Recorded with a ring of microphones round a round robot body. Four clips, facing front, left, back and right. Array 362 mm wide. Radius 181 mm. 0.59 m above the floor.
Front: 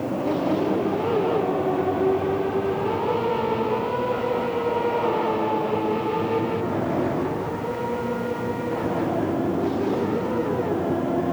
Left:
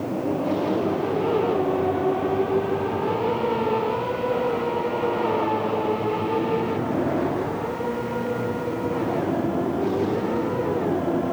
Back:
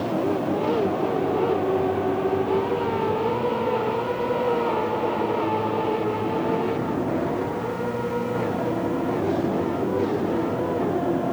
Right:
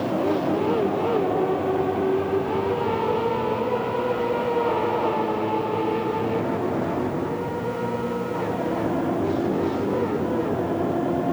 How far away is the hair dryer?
I don't hear a hair dryer.